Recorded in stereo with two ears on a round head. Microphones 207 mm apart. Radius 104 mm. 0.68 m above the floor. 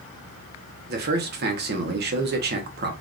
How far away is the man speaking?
About 0.7 m.